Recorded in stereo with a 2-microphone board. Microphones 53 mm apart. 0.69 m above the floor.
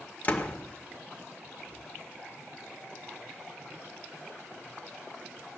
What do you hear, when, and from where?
0.2 s a door slam: 35° left (ahead or behind), 1.7 m